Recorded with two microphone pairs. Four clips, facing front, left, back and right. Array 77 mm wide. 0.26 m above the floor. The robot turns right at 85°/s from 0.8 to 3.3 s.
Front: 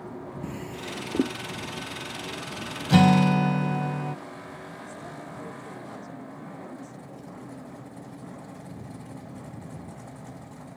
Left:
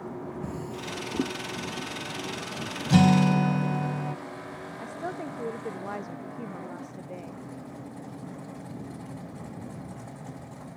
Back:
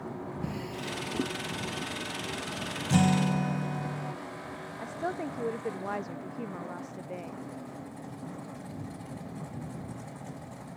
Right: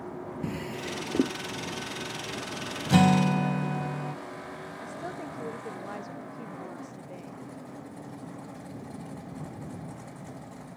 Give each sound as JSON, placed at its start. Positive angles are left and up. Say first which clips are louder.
{"t": 0.4, "sound": "a drawer", "louder": "right 1 dB, even", "azimuth_deg": -80}
{"t": 2.9, "sound": "a guitar", "louder": "left 1 dB, front 7 dB", "azimuth_deg": -25}
{"t": 4.8, "sound": "a woman speaking", "louder": "left 4 dB, back 6 dB", "azimuth_deg": 155}